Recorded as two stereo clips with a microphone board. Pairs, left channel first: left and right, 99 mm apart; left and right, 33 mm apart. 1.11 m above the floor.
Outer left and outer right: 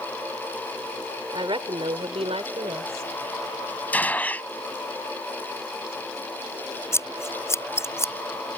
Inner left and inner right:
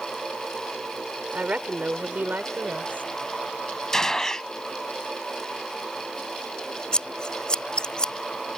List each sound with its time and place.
1.3 s a woman speaking: 55° right (ahead or behind); by 3.1 s 85° right
3.9 s a gunshot: 15° left (ahead or behind)
6.9 s scissors: 25° left (ahead or behind)